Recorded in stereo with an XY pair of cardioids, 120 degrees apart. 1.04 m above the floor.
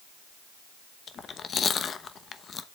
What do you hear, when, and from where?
1.1 s chewing: 40° left, 0.8 m